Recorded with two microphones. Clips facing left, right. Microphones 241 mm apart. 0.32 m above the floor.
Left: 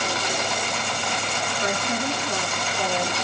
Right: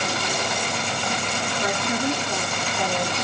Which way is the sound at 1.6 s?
20° right (ahead or behind).